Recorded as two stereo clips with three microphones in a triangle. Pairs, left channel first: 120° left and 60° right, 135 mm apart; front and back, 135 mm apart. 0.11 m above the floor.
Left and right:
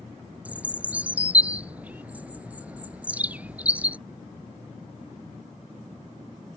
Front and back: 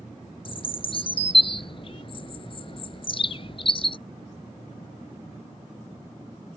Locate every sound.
0.5 s a bird: 15° left